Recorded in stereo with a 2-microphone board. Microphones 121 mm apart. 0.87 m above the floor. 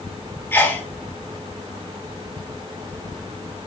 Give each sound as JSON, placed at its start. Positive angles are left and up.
{"t": 0.5, "sound": "a sneeze", "side_deg": 15, "distance_m": 1.5}